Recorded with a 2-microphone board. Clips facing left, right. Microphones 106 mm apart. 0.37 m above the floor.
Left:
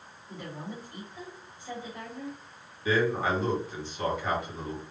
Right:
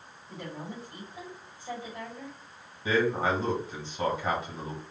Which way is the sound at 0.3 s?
15° right (ahead or behind).